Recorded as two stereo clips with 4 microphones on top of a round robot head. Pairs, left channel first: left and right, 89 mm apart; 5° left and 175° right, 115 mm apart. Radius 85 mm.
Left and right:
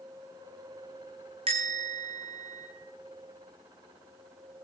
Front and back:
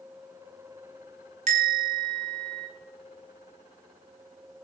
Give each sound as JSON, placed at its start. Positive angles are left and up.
{"t": 1.5, "sound": "a bell", "azimuth_deg": -135, "distance_m": 2.5}